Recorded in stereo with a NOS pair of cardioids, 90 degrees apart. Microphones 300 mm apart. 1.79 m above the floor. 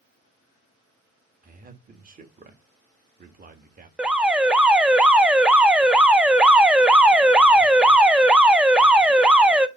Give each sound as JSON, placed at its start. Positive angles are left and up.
{"t": 1.4, "sound": "a man speaking", "azimuth_deg": -30, "distance_m": 1.3}
{"t": 4.0, "sound": "an alarm", "azimuth_deg": -5, "distance_m": 0.5}